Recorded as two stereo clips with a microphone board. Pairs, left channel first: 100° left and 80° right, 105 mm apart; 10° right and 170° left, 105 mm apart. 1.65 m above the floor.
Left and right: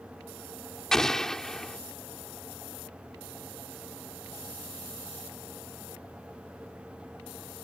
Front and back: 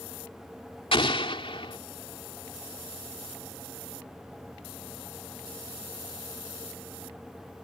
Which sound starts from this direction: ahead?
An explosion, at 0.9 s.